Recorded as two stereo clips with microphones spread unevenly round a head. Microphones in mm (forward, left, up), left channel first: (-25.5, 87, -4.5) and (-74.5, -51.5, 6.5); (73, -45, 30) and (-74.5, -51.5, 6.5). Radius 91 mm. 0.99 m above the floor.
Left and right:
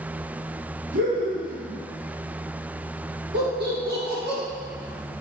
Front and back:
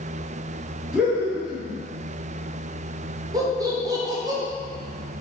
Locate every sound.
0.9 s laughter: 95° right, 1.8 m
3.3 s laughter: 115° right, 1.5 m